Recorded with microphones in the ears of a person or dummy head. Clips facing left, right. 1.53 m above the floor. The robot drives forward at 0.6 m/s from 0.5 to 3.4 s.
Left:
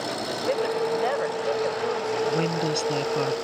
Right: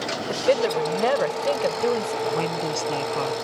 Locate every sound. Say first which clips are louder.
0.3 s a woman speaking: right 5 dB; 50° right (ahead or behind); by 2.1 s 45° right (ahead or behind)
2.2 s a woman speaking: left 1 dB; 20° left (ahead or behind)